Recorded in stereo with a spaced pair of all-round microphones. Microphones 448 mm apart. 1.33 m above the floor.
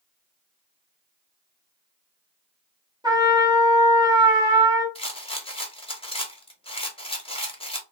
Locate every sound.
3.0 s a trumpet: 10° right (ahead or behind), 1.1 m
5.0 s a rattle: 15° left (ahead or behind), 0.6 m